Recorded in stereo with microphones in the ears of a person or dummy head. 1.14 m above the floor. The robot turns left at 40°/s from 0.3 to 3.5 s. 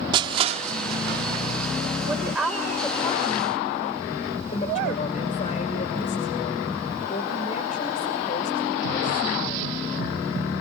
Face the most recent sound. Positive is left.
turn(degrees=145)